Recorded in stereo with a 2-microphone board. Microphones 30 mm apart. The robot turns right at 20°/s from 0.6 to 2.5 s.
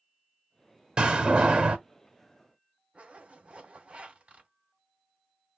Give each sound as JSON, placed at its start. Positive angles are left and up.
{"t": 1.0, "sound": "a door slam", "side_deg": -35, "distance_m": 0.9}
{"t": 2.9, "sound": "a zipper", "side_deg": -40, "distance_m": 2.0}